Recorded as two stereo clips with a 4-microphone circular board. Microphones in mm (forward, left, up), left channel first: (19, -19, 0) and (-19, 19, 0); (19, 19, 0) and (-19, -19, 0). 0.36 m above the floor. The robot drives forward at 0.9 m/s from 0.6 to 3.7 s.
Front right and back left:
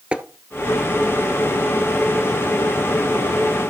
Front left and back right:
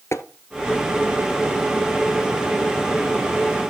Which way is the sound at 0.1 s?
65° left.